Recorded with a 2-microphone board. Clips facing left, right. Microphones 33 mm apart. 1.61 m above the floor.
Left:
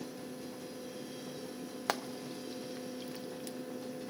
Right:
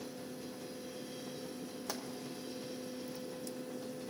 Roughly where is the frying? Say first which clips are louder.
Left 9 dB; left.